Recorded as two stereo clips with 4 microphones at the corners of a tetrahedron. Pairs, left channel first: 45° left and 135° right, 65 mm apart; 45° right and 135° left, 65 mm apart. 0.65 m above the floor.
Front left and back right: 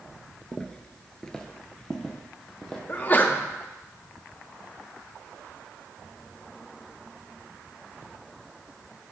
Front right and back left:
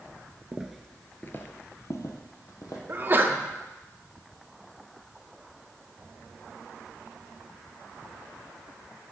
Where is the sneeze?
95° left, 0.7 m.